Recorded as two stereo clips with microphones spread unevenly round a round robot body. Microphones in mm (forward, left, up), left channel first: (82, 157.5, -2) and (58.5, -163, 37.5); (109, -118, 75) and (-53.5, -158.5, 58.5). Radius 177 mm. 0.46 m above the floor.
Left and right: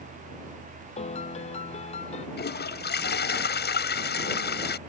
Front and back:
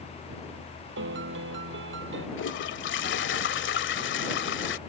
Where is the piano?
160° left.